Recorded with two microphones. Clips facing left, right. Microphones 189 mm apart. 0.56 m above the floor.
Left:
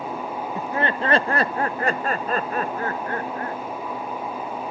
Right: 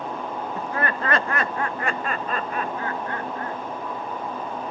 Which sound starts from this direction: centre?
Laughter, at 0.6 s.